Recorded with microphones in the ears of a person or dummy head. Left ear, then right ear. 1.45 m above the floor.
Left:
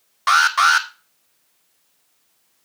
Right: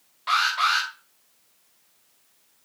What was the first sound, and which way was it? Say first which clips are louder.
An alarm: left 7 dB; 50° left (ahead or behind).